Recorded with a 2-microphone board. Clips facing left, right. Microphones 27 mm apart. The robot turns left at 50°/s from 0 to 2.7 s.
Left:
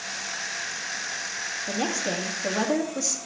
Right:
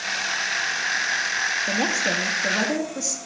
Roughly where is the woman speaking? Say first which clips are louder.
Right 5 dB; behind right.